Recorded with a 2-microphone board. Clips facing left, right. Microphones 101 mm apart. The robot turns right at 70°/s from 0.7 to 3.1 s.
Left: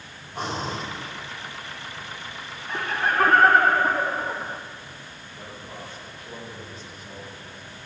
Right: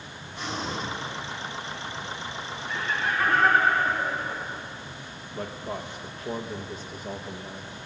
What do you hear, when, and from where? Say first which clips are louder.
0.3 s breathing: left 3 dB; 45° left (ahead or behind), 3 m; by 0.8 s 55° left (ahead or behind), 3 m
2.7 s laughter: left 4 dB; 50° left (ahead or behind), 1.0 m; by 4.6 s 55° left (ahead or behind), 1.0 m
5.3 s a man speaking: right 7 dB; 50° right (ahead or behind), 1.1 m